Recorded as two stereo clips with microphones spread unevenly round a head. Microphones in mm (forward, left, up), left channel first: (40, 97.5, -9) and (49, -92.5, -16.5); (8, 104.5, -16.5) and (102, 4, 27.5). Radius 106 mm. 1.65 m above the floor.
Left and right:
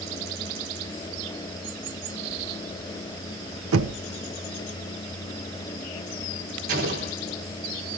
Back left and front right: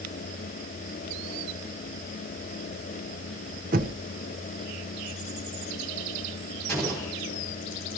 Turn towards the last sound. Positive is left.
turn(degrees=-140)